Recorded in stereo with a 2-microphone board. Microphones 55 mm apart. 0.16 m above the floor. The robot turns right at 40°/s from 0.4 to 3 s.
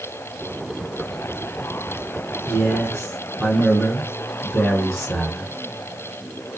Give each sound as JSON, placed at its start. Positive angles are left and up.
{"t": 2.5, "sound": "a man speaking", "side_deg": 15, "distance_m": 1.6}